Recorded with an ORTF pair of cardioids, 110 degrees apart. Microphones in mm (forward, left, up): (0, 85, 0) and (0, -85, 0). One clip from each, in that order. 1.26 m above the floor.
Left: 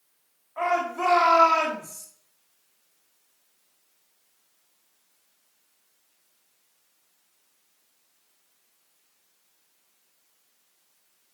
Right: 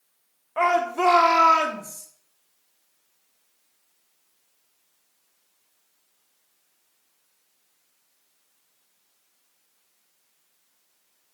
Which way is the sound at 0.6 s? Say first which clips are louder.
Right 4 dB; 55° right.